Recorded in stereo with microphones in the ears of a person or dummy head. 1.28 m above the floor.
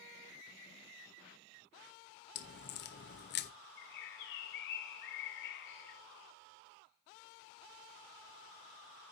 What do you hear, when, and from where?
2.4 s a crack: 50° left (ahead or behind), 0.8 m
3.8 s a bird: 55° left (ahead or behind), 1.3 m